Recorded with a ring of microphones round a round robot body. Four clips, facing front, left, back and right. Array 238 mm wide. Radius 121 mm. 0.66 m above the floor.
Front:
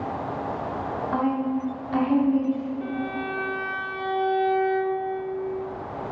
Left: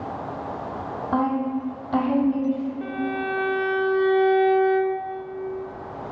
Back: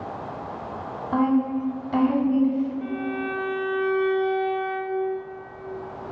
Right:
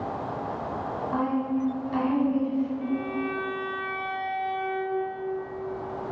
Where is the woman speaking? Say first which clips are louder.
Left 4 dB, back 4 dB; 125° left, 2.0 m.